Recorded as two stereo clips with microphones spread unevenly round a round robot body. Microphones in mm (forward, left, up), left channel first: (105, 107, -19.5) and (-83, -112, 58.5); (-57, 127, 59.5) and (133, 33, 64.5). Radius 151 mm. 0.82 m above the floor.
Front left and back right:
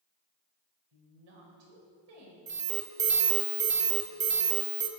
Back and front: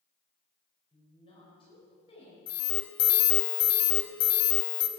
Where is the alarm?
160° left, 1.2 m.